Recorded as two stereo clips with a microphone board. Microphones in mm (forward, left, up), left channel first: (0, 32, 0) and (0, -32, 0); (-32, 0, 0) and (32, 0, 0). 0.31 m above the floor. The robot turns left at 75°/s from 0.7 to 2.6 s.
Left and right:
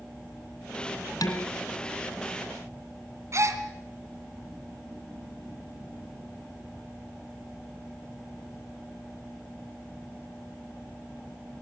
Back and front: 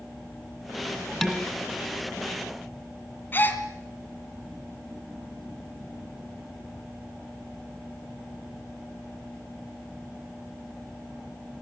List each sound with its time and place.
1.2 s dishes clattering: 90° left, 2 m; by 1.5 s 75° left, 2 m
3.3 s a gasp: 125° right, 2.0 m